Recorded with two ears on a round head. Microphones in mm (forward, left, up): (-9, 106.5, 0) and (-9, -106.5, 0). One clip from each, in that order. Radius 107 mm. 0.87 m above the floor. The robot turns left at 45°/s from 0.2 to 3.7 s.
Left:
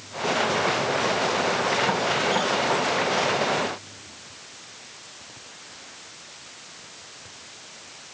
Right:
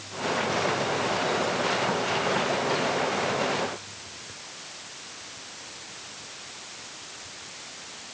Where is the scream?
No scream in this recording.